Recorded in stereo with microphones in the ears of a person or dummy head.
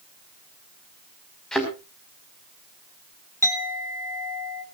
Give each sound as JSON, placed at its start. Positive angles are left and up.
{"t": 1.5, "sound": "a thud", "side_deg": 0, "distance_m": 5.5}
{"t": 3.4, "sound": "a clink", "side_deg": -25, "distance_m": 2.0}